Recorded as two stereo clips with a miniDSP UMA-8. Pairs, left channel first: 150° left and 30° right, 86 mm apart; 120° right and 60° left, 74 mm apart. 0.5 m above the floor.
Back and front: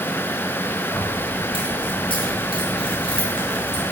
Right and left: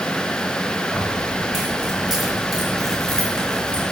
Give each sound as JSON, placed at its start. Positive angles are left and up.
{"t": 0.9, "sound": "keys jangling", "azimuth_deg": 140, "distance_m": 5.0}